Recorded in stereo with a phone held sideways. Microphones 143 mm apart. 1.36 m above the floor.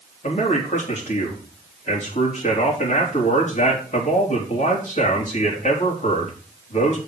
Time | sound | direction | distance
0.2 | a man speaking | 55° left (ahead or behind) | 3.5 m